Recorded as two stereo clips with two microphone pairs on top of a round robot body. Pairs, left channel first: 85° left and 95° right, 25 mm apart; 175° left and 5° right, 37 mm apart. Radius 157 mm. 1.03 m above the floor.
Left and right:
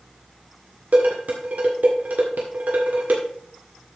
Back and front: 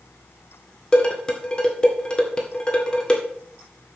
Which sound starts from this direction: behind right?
Dishes clattering, at 0.9 s.